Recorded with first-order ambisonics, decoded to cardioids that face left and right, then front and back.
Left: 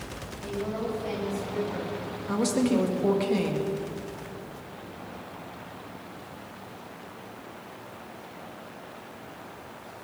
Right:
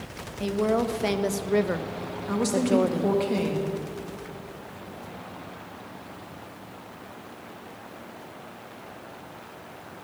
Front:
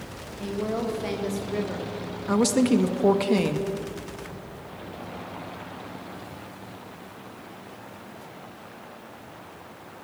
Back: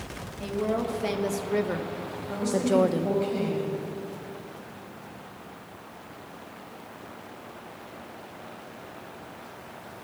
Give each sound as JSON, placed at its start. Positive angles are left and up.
{"t": 0.4, "sound": "a woman speaking", "azimuth_deg": -85, "distance_m": 1.7}
{"t": 2.3, "sound": "a woman speaking", "azimuth_deg": 0, "distance_m": 1.5}